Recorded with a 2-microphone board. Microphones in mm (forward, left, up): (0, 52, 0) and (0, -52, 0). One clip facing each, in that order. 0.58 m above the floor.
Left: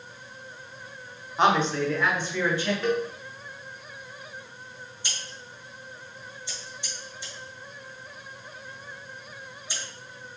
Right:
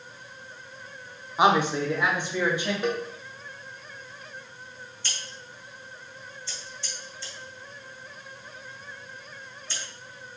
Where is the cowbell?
20° right (ahead or behind), 1.5 m.